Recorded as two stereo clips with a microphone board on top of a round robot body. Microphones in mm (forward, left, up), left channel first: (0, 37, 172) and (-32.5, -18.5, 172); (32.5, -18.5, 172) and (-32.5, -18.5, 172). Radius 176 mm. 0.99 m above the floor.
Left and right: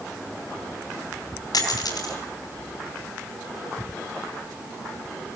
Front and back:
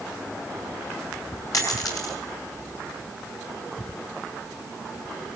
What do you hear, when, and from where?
1.5 s a dropped coin: 35° left, 5 m